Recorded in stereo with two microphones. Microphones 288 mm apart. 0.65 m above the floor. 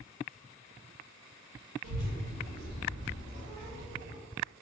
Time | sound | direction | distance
1.8 | a child speaking | 65° right (ahead or behind) | 0.6 m